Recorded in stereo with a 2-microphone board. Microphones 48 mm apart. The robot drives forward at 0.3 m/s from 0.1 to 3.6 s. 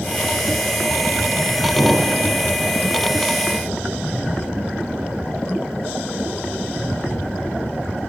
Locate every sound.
1.8 s an explosion: 65° right (ahead or behind), 4 m